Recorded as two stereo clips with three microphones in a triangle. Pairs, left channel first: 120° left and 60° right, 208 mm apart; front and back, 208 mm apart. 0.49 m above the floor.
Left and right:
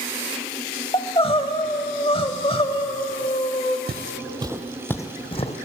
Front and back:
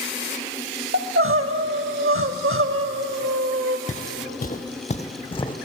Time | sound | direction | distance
0.9 | crying | straight behind | 0.6 m
3.9 | footsteps | 45° right | 0.7 m